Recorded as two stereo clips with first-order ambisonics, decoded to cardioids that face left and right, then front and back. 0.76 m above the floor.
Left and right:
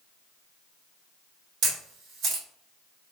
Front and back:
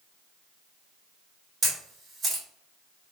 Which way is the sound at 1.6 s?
105° right.